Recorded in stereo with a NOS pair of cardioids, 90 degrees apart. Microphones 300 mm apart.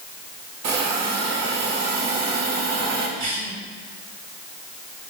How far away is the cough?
About 3.5 m.